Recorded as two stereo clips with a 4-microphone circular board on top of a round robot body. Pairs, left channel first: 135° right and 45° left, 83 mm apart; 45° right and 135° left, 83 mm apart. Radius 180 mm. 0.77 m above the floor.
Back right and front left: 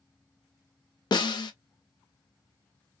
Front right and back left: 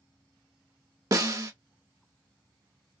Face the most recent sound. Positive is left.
turn(degrees=-170)